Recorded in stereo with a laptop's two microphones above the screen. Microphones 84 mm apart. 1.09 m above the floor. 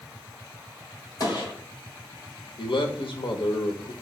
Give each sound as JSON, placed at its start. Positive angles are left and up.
{"t": 1.2, "sound": "a gunshot", "side_deg": 50, "distance_m": 1.6}
{"t": 2.6, "sound": "a man speaking", "side_deg": 80, "distance_m": 0.7}